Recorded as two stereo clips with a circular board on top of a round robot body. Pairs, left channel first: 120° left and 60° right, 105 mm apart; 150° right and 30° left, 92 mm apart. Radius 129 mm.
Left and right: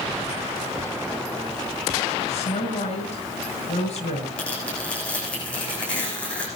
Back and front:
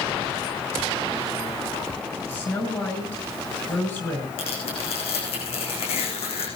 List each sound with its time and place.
2.3 s a woman speaking: 145° left, 5.5 m
4.4 s tearing paper: 160° right, 9.5 m